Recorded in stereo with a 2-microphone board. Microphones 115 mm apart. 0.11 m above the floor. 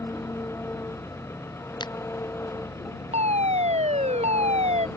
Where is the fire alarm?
80° right.